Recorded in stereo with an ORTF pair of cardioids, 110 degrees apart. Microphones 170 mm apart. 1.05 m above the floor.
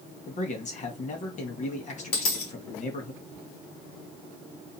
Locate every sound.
0.3 s a man speaking: 50° left, 1.3 m
2.1 s a dropped coin: 65° left, 1.4 m